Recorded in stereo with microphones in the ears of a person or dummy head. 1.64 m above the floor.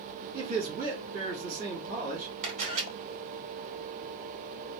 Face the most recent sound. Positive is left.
turn(degrees=-40)  # may be behind; listen again after turning